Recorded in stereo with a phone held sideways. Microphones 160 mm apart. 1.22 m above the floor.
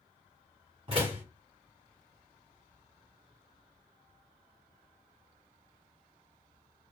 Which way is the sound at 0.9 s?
35° right (ahead or behind).